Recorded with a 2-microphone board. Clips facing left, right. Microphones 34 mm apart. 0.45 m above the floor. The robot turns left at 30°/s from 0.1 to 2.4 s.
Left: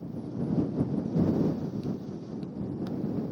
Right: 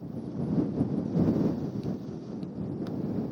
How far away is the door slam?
No door slam in this recording.